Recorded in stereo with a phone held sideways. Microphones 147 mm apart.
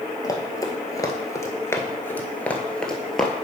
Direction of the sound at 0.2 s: 25° left (ahead or behind).